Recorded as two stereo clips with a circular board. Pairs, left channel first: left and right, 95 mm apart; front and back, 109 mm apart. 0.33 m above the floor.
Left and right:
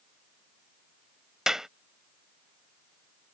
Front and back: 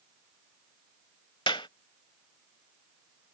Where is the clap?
10° right.